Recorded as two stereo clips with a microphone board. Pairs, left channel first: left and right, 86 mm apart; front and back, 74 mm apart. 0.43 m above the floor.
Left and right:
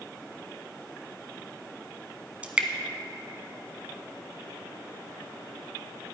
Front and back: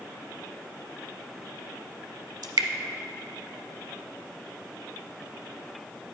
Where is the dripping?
165° right, 0.7 m.